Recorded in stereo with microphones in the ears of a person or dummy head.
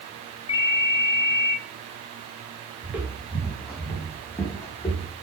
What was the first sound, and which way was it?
A ringtone, 30° left (ahead or behind).